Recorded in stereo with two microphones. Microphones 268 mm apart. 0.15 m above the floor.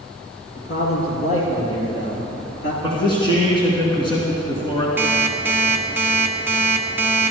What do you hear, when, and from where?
0.6 s a man speaking: 55° left (ahead or behind), 4 m; by 2.7 s 45° left (ahead or behind), 3 m
2.8 s a man speaking: 20° left (ahead or behind), 2.0 m
5.0 s an alarm clock: 10° right (ahead or behind), 0.9 m